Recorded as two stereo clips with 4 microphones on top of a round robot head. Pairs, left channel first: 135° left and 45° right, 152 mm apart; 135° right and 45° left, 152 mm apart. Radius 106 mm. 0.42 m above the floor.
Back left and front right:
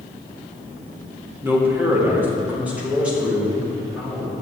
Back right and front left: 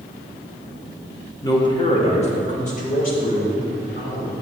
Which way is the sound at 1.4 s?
100° right.